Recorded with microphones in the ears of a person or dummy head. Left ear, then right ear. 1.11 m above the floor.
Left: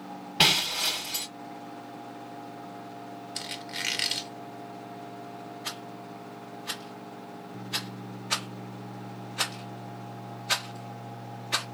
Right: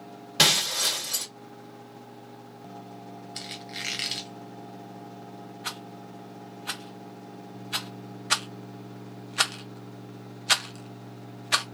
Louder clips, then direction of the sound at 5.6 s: Right 3 dB; 35° right (ahead or behind).